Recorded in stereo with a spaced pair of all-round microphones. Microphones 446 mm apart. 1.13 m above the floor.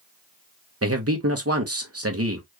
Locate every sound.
0.8 s a man speaking: 35° right (ahead or behind), 1.2 m